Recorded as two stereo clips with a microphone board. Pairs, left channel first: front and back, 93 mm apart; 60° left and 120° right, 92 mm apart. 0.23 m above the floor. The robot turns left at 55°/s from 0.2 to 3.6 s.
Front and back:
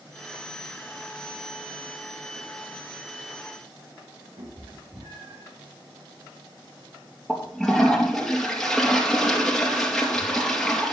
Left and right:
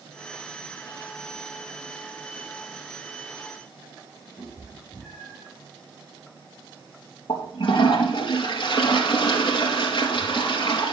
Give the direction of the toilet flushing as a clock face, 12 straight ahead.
9 o'clock.